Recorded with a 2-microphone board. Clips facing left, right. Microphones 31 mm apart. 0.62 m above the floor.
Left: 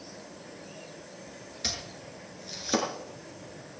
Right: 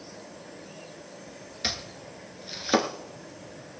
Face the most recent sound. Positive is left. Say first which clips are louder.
# right 3 dB
turn(degrees=-30)  # may be behind; listen again after turning